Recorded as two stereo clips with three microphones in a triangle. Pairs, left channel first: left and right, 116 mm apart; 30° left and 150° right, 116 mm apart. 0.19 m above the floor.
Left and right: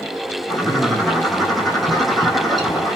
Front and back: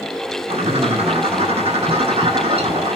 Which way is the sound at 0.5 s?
Straight behind.